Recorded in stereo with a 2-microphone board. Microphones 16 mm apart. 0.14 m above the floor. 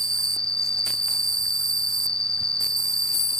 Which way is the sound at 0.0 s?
60° left (ahead or behind).